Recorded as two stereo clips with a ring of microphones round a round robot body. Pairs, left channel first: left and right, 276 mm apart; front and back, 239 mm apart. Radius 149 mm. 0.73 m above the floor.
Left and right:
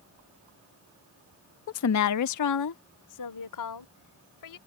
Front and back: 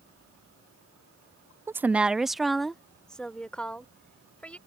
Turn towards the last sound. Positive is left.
turn(degrees=85)